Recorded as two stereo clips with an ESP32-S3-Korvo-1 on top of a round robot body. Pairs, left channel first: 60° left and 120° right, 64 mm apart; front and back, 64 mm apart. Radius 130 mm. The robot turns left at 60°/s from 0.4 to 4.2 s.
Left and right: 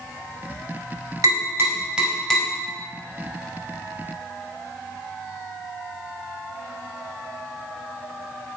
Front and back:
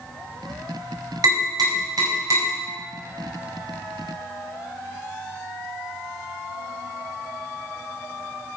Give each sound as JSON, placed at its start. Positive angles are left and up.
{"t": 1.2, "sound": "tapping", "azimuth_deg": -155, "distance_m": 4.0}